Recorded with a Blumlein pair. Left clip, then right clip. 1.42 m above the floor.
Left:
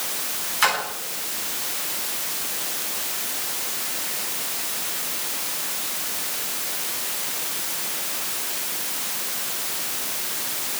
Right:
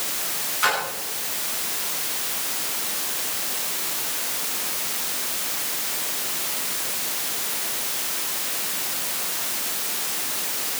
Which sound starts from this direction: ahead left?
A splash, at 0.6 s.